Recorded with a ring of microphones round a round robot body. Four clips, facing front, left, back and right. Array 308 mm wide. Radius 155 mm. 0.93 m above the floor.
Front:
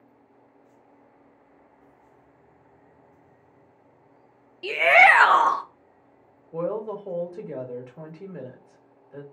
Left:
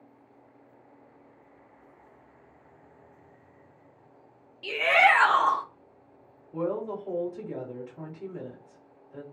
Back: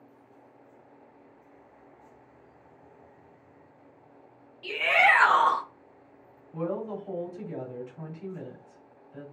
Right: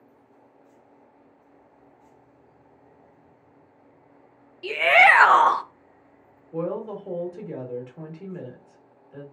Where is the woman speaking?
30° right, 1.4 m.